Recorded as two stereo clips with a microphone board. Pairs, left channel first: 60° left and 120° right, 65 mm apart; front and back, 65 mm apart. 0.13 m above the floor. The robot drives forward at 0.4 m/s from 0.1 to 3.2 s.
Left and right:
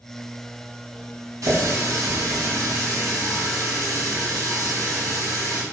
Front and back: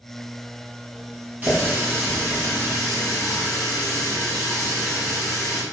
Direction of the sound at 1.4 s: 115° right.